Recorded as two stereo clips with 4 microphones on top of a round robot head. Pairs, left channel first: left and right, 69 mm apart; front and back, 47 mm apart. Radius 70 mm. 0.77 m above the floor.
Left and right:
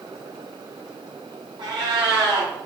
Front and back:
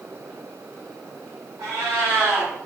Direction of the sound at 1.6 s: 135° right.